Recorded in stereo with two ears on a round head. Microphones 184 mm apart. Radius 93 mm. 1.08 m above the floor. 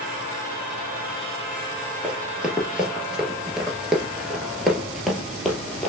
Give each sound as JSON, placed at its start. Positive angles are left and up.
{"t": 2.0, "sound": "running footsteps", "side_deg": -5, "distance_m": 1.3}